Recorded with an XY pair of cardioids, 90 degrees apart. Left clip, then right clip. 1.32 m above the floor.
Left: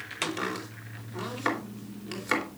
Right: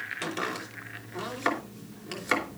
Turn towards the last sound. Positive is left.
turn(degrees=-5)